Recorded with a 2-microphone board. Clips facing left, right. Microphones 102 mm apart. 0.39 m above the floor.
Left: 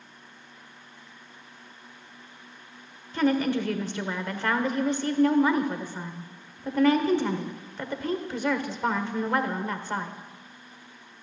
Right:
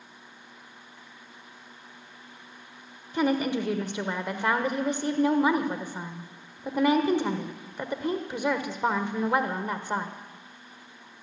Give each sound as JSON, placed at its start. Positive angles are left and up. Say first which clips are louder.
{"t": 3.1, "sound": "a woman speaking", "louder": "left 1 dB", "side_deg": -15, "distance_m": 1.2}